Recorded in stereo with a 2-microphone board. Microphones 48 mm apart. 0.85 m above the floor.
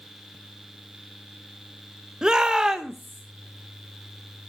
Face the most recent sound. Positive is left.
turn(degrees=0)  # may be behind; listen again after turning